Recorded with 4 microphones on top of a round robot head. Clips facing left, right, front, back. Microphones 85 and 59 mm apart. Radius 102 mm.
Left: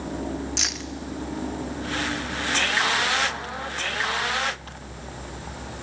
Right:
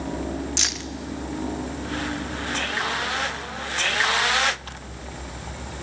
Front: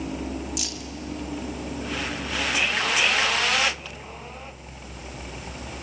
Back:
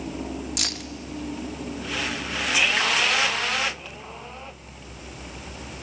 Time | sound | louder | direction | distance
0.6 | keys jangling | right 1 dB, back 1 dB | straight behind | 0.7 m